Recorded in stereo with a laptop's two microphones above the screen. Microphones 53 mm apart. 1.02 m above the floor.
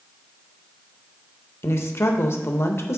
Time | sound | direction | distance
1.6 | a woman speaking | 55° left (ahead or behind) | 0.7 m